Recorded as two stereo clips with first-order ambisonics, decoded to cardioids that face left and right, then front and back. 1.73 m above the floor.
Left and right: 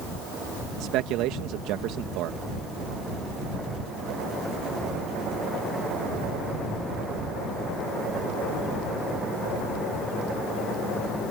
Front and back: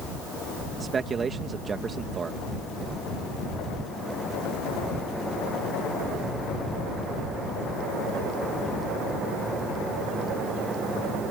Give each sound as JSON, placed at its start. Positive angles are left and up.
{"t": 0.8, "sound": "a man speaking", "azimuth_deg": -110}